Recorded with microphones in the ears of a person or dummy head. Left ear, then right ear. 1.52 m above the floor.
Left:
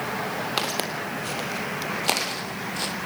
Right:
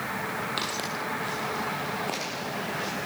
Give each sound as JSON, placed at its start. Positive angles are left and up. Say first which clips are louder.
{"t": 0.6, "sound": "footsteps", "louder": "left 3 dB", "side_deg": 30, "distance_m": 3.0}